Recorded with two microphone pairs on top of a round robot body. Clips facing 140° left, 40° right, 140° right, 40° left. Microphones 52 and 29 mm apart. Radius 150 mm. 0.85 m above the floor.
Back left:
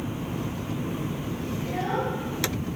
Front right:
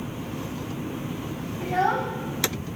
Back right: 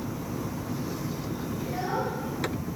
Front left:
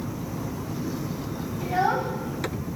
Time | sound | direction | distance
1.6 | a child speaking | 5° right | 1.4 m